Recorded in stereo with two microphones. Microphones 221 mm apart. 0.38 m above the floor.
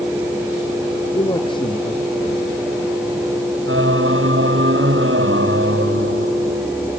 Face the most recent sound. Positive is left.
turn(degrees=-65)  # may be behind; listen again after turning